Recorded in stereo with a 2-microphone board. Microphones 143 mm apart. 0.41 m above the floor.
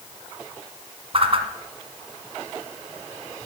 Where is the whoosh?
45° right (ahead or behind), 1.4 m.